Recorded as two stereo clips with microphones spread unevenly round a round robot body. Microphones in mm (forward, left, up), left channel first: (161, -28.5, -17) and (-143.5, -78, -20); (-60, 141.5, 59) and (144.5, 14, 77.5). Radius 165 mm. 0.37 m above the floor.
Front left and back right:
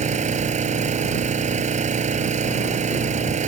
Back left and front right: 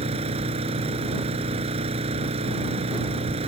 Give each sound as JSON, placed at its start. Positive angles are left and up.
{"t": 0.0, "sound": "an engine running", "azimuth_deg": -105}